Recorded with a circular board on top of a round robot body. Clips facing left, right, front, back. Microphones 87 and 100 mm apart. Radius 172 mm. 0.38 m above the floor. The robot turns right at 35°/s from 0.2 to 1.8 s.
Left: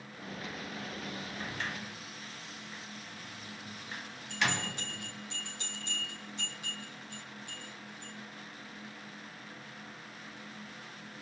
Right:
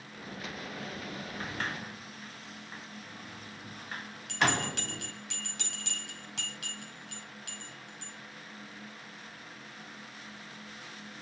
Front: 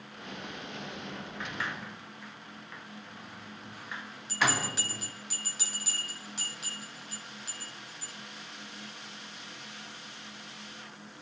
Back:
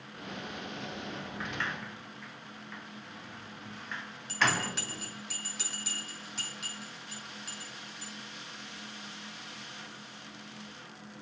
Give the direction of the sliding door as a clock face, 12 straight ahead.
3 o'clock.